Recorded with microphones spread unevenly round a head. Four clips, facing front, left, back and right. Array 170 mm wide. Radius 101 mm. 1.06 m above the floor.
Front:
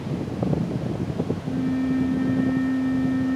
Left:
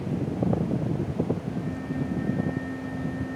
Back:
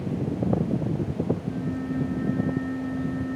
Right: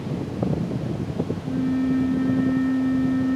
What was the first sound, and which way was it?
A flute, 85° right.